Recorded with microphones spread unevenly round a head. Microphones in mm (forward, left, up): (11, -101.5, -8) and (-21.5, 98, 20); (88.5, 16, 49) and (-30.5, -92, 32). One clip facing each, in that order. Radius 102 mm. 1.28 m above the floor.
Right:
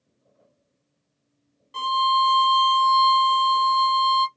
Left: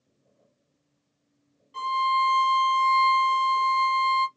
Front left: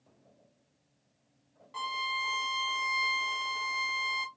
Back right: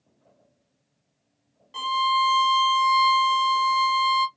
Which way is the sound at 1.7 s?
75° right.